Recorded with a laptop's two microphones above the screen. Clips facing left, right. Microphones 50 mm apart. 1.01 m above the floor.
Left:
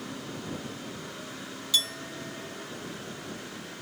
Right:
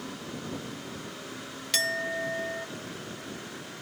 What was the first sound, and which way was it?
A clink, 75° right (ahead or behind).